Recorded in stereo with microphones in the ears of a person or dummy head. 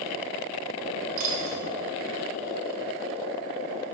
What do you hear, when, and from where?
1.2 s a dropped coin: 40° right (ahead or behind), 1.3 m